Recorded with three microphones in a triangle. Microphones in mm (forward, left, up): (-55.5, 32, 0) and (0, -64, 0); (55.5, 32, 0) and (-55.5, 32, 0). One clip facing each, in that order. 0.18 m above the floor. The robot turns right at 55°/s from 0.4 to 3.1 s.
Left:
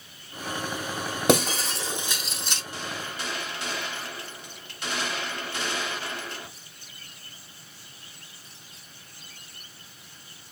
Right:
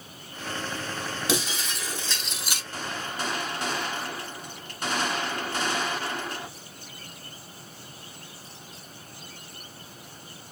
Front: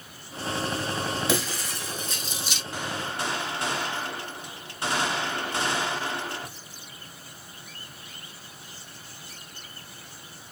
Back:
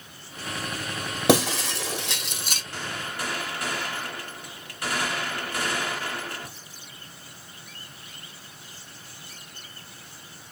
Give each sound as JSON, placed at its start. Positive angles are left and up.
{"t": 1.3, "sound": "breaking glass", "azimuth_deg": 155, "distance_m": 1.1}
{"t": 2.7, "sound": "a gunshot", "azimuth_deg": -70, "distance_m": 1.3}